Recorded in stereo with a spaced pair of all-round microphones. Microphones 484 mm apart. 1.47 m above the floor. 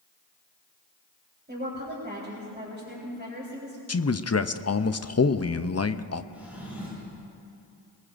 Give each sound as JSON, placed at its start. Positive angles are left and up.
{"t": 1.5, "sound": "a woman speaking", "side_deg": -20, "distance_m": 4.0}
{"t": 3.9, "sound": "a man speaking", "side_deg": 35, "distance_m": 0.5}
{"t": 6.3, "sound": "a drawer", "side_deg": -5, "distance_m": 6.5}